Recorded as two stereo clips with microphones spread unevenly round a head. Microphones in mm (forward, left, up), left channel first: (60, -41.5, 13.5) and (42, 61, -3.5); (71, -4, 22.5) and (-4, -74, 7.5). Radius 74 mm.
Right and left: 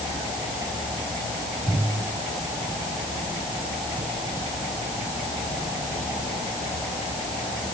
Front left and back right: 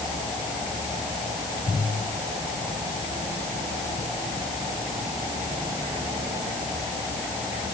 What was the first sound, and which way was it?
Only background noise.